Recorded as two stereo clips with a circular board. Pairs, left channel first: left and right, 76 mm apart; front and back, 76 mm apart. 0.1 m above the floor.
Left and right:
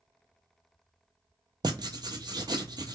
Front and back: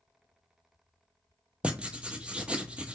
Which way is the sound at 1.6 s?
105° right.